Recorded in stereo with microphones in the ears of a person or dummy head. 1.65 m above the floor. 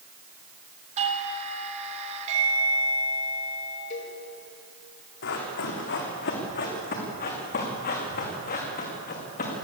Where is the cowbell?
40° left (ahead or behind), 4.5 m.